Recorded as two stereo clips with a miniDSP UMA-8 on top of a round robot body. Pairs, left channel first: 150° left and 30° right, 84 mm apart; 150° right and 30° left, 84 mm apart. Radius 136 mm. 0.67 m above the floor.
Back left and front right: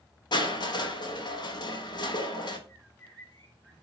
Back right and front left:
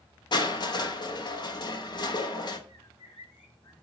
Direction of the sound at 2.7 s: 130° right.